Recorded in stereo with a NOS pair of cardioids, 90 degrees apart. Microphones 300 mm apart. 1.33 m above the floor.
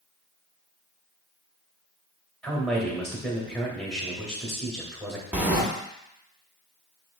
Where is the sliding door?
5° right, 1.0 m.